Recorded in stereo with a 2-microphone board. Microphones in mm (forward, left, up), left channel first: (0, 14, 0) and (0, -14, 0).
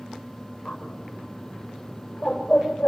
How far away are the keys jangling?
I don't hear keys jangling.